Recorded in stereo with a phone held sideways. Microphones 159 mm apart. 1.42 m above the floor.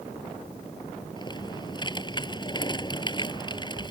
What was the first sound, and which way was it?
Typing on a keyboard, 30° left (ahead or behind).